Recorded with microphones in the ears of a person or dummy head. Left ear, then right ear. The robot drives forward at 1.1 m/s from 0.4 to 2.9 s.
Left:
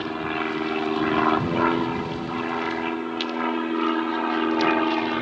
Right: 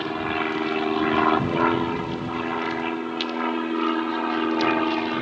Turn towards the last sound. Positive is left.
turn(degrees=10)  # may be behind; listen again after turning